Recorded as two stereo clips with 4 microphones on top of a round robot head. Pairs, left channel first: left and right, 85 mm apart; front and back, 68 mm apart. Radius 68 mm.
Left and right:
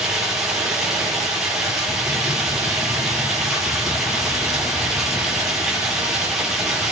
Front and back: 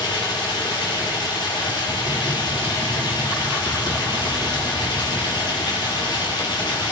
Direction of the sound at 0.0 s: 5° right.